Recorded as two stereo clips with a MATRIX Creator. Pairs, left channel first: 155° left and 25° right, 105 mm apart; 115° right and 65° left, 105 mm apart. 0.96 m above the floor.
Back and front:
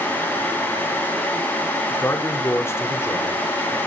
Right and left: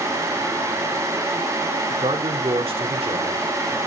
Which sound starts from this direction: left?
A man speaking, at 1.9 s.